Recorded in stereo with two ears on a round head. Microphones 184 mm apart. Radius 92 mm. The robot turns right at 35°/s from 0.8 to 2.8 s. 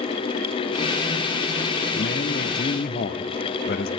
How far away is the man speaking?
About 0.9 m.